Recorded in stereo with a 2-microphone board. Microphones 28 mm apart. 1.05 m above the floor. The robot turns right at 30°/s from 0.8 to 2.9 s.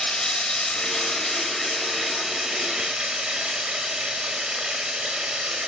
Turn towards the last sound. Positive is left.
turn(degrees=-140)